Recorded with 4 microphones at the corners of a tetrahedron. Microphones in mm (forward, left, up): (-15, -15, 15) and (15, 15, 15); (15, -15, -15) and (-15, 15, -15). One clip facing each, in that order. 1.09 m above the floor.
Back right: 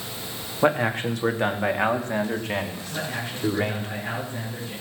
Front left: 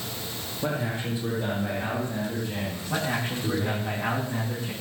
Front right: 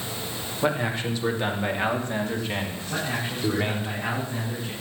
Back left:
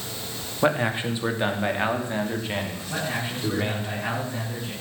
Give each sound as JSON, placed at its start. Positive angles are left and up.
{"t": 0.6, "sound": "a man speaking", "azimuth_deg": -160, "distance_m": 2.5}
{"t": 2.9, "sound": "a man speaking", "azimuth_deg": 50, "distance_m": 9.5}